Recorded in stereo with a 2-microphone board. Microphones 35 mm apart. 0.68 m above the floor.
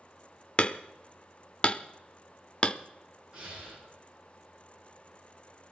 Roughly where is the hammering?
Left.